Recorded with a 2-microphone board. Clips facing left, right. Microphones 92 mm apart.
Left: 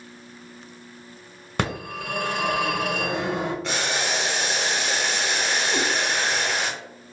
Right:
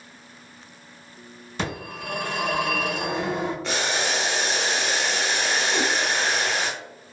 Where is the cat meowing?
75° left (ahead or behind), 1.3 m.